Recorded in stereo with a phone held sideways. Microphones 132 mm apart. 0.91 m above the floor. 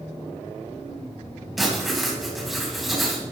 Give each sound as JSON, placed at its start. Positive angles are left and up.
{"t": 1.6, "sound": "writing", "side_deg": 0, "distance_m": 3.5}